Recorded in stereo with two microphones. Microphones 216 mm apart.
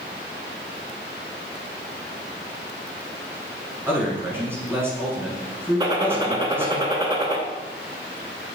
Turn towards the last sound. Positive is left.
turn(degrees=-25)  # may be behind; listen again after turning